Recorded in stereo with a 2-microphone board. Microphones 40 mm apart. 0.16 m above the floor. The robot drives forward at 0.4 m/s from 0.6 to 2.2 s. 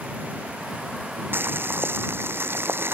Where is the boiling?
60° right (ahead or behind); by 3.0 s 65° right (ahead or behind).